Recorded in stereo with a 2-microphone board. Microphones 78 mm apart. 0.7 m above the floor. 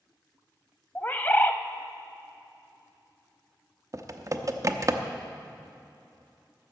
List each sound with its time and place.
0.9 s a bird: 25° left (ahead or behind), 0.5 m
3.9 s typing on a keyboard: 45° right (ahead or behind), 0.7 m